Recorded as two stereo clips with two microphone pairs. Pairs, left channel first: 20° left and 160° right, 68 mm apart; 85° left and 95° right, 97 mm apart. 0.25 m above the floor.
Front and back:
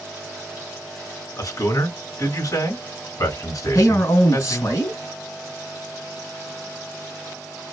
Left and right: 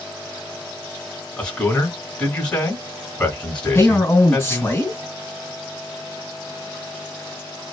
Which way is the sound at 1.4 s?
10° left.